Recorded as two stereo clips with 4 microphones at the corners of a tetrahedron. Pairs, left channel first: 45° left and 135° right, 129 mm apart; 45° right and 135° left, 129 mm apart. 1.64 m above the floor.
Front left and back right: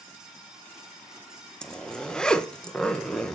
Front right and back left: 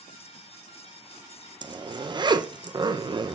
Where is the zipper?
125° left, 0.8 m.